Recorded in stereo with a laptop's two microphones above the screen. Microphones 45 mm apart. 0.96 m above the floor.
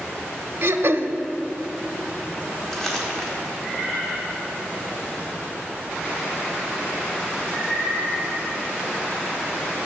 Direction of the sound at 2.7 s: 10° left (ahead or behind).